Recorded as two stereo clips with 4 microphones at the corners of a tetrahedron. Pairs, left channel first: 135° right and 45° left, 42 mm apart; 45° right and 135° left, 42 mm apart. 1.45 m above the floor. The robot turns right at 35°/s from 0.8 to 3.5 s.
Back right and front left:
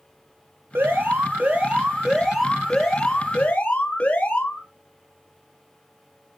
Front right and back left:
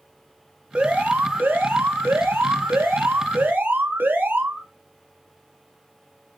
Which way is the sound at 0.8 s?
75° left.